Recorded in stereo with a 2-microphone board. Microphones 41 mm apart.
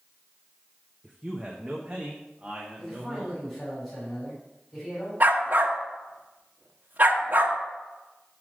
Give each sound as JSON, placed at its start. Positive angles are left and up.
{"t": 1.0, "sound": "a man speaking", "side_deg": -5, "distance_m": 0.8}
{"t": 2.8, "sound": "a man speaking", "side_deg": 10, "distance_m": 4.5}
{"t": 5.2, "sound": "a dog barking", "side_deg": -45, "distance_m": 1.1}